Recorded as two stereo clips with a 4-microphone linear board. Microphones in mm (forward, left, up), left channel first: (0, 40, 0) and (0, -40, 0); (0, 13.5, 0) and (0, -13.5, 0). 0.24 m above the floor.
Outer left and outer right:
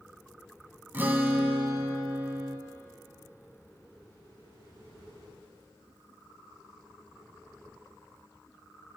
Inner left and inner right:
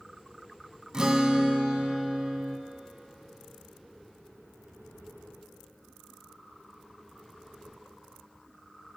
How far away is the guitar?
About 0.6 m.